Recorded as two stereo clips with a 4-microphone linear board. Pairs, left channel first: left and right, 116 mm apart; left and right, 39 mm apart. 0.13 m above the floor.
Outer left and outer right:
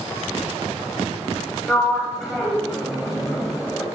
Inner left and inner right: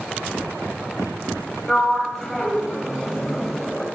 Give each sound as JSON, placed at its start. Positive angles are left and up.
{"t": 1.7, "sound": "a sliding door", "side_deg": -5, "distance_m": 5.5}